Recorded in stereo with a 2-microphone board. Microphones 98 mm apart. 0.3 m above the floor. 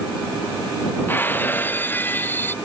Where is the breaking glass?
20° left (ahead or behind).